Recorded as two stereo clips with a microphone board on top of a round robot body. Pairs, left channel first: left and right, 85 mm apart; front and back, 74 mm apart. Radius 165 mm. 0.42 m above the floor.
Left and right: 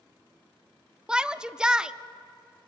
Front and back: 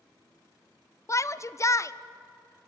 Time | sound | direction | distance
1.1 | a shout | 15° right | 0.9 m